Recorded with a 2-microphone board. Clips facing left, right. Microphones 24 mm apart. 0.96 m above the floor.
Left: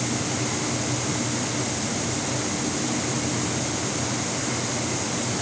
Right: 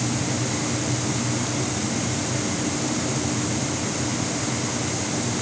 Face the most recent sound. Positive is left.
No sound to turn to.